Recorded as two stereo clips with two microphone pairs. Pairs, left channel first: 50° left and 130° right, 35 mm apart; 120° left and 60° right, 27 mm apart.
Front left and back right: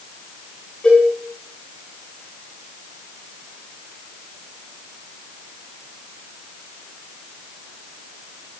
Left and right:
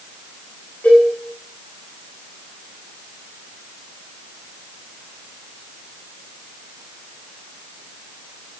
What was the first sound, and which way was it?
A cowbell, 115° left.